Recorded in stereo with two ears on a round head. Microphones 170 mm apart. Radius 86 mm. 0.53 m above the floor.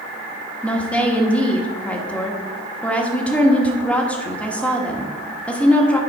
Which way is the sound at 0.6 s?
5° left (ahead or behind).